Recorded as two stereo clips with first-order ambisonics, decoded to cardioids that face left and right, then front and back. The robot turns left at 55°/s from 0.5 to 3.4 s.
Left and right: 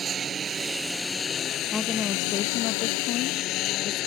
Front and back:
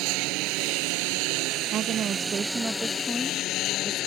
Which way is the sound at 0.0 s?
155° right.